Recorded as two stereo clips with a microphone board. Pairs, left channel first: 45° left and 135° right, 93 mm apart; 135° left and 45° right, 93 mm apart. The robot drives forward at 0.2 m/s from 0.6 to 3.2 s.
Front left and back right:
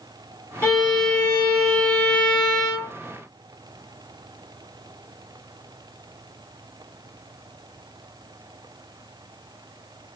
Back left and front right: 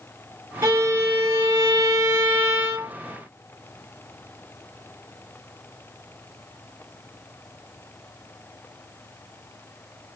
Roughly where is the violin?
Ahead.